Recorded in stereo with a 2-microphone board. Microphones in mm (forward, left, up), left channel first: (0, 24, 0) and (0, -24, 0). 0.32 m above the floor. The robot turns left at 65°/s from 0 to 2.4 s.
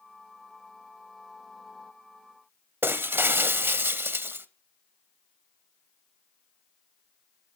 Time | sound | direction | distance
2.8 | breaking glass | 50° right (ahead or behind) | 0.7 m